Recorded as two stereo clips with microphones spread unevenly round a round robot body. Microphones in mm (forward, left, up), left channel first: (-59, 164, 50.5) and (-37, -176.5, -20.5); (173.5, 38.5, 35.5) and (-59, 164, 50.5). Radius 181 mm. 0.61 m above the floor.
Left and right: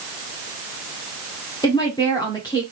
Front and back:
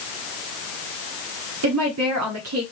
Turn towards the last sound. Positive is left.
turn(degrees=180)